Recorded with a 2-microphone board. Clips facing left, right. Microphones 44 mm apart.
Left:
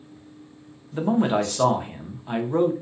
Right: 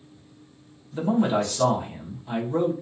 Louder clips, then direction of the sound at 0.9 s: Left 1 dB; 30° left (ahead or behind).